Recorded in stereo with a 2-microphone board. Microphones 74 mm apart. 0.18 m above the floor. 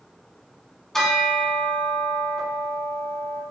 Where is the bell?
10° left (ahead or behind), 0.9 m.